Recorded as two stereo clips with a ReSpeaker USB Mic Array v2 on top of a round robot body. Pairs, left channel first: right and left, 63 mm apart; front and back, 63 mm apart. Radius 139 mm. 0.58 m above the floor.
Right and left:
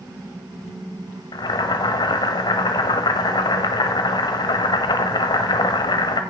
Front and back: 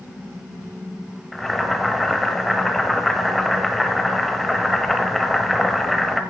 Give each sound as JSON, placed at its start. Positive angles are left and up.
{"t": 1.3, "sound": "boiling", "azimuth_deg": -90, "distance_m": 1.1}